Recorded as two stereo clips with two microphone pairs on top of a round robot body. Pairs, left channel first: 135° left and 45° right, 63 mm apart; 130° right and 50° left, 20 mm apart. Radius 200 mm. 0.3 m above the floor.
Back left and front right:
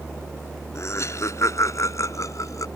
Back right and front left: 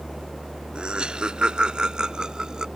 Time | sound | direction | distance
0.8 | laughter | 95° left | ?